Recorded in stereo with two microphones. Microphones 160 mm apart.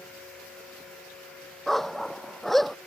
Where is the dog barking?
Centre (ahead or behind).